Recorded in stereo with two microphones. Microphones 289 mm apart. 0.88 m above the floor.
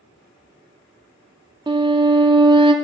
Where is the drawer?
I don't hear a drawer.